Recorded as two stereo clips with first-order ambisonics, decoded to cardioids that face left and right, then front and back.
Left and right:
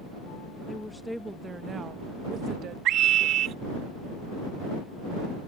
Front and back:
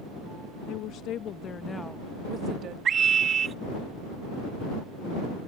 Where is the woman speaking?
10° left; by 2.8 s 140° right.